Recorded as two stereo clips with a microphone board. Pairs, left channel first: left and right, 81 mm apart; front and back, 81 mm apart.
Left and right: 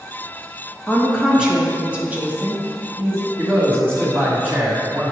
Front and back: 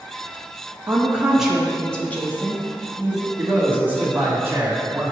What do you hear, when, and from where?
0.9 s a woman speaking: 170° right, 1.0 m; by 3.3 s 30° right, 1.5 m
3.4 s a man speaking: 130° right, 1.6 m